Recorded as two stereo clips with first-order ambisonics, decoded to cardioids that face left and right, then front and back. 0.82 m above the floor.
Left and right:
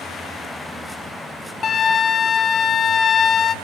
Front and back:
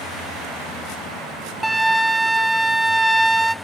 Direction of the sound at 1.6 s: 100° left.